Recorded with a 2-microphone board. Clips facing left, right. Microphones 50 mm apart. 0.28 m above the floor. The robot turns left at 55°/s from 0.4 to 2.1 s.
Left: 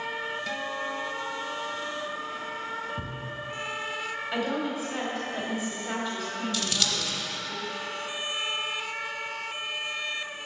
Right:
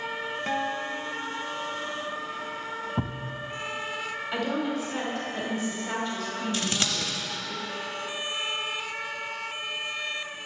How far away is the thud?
About 0.5 m.